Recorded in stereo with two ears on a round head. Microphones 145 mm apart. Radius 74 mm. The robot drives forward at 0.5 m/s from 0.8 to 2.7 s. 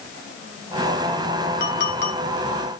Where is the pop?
No pop in this recording.